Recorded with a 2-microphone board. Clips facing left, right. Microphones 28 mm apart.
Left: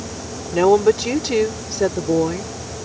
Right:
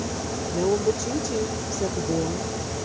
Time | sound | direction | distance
0.5 | a woman speaking | 75° left (ahead or behind) | ?